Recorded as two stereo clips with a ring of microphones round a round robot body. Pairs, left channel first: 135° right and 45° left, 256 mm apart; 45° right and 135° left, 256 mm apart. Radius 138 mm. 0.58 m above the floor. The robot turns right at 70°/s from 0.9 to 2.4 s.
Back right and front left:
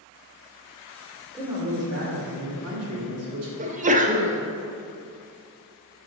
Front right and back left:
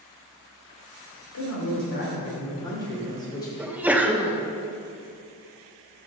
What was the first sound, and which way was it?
A man speaking, 45° right.